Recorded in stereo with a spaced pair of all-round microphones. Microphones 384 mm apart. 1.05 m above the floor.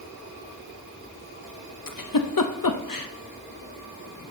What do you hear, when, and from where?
1.9 s a giggle: 60° left (ahead or behind), 0.6 m